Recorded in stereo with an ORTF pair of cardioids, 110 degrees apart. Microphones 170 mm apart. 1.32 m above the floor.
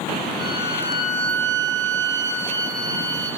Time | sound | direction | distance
0.4 | a violin | 25° right | 0.9 m